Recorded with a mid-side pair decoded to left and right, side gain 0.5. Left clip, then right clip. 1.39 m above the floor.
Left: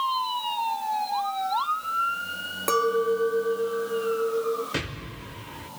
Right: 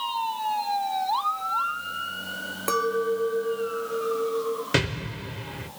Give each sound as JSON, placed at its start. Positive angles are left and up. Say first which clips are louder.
{"t": 2.7, "sound": "a clink", "louder": "left 2 dB", "azimuth_deg": 10, "distance_m": 0.8}
{"t": 4.7, "sound": "an explosion", "louder": "right 6 dB", "azimuth_deg": -55, "distance_m": 1.5}